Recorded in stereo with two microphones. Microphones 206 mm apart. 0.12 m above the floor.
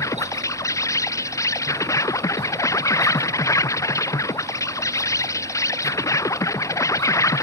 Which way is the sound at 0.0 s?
15° left (ahead or behind).